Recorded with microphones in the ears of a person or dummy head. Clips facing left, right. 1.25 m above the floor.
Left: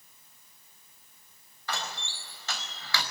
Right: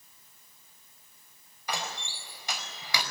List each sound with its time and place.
1.7 s a door slam: 15° right (ahead or behind), 4.5 m